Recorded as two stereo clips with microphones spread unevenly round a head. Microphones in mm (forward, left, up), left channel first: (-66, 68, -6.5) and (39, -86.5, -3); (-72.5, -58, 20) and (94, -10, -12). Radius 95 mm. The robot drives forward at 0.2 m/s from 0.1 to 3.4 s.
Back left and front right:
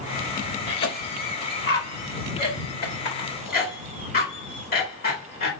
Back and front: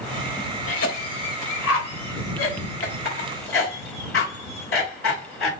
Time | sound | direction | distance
0.7 | a cough | 150° left | 1.3 m